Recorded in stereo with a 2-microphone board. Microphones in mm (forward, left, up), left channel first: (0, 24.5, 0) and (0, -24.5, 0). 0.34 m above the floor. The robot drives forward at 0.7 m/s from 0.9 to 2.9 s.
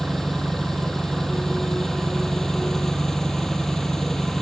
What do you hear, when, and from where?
0.0 s an engine running: 5° left (ahead or behind); by 4.4 s 10° left (ahead or behind)